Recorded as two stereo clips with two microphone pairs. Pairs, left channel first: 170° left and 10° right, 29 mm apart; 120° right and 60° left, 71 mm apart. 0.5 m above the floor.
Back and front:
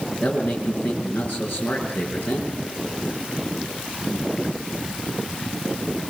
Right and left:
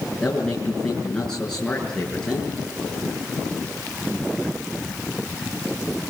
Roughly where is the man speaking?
Behind.